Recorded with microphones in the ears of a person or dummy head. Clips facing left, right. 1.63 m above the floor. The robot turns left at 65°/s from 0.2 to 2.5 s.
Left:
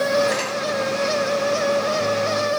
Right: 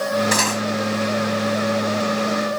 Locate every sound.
0.3 s cutlery clinking: 80° right; by 0.6 s 70° right (ahead or behind)